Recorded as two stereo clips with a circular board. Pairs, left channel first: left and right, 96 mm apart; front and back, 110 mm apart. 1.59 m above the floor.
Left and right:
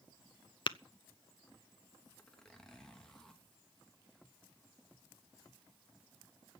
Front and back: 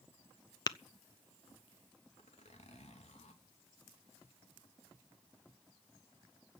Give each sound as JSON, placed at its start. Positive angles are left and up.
{"t": 0.7, "sound": "tapping", "azimuth_deg": 50, "distance_m": 0.6}
{"t": 2.2, "sound": "a zipper", "azimuth_deg": 5, "distance_m": 3.0}